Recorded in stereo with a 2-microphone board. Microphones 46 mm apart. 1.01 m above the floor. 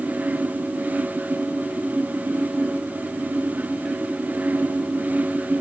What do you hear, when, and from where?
Only background noise.